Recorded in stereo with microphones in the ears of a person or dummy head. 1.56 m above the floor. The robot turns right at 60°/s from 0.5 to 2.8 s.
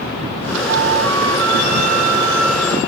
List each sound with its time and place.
0.7 s a flute: 110° right, 2.0 m; by 2.8 s 15° left, 2.0 m